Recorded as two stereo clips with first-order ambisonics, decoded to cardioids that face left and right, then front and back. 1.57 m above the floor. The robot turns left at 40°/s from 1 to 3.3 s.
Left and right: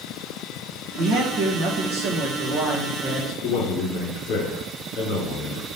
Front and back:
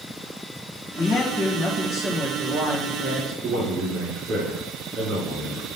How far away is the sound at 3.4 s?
About 4 m.